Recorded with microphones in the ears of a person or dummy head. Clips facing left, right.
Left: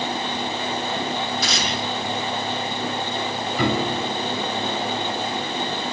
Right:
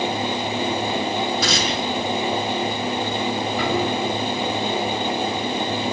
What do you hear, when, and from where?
1.4 s tearing paper: 70° right (ahead or behind), 8 m
3.6 s a piano: 80° left, 7.5 m